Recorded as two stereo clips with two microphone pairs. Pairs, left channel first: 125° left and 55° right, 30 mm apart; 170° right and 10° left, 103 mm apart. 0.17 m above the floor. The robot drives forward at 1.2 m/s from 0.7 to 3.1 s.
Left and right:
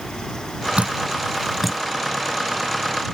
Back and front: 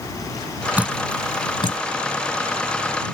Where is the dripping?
55° right; by 1.8 s 150° right.